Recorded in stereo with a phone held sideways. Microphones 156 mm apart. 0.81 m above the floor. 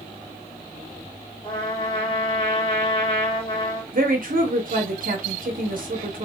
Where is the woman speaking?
65° right (ahead or behind), 0.8 m.